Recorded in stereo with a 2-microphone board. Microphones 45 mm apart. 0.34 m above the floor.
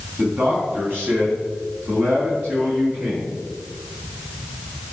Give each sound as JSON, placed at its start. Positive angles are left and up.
{"t": 0.2, "sound": "a man speaking", "side_deg": -45, "distance_m": 3.0}